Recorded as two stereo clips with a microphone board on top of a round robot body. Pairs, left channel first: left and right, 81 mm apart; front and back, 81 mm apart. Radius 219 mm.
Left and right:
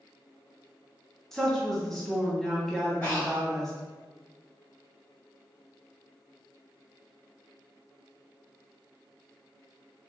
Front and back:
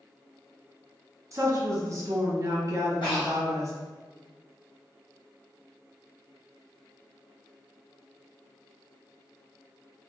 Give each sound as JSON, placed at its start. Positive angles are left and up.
{"t": 1.3, "sound": "a woman speaking", "azimuth_deg": 175, "distance_m": 1.3}
{"t": 3.0, "sound": "breathing", "azimuth_deg": 25, "distance_m": 1.6}